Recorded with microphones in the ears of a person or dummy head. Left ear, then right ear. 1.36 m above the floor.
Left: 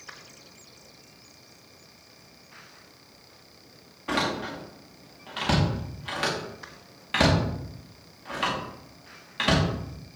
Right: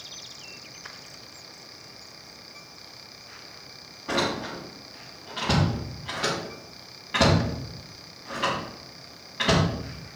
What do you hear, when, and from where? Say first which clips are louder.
4.1 s a door slam: right 1 dB; 20° left (ahead or behind), 1.8 m